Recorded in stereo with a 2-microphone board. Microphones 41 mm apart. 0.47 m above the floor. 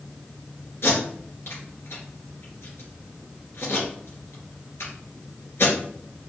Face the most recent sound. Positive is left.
turn(degrees=70)  # may be behind; listen again after turning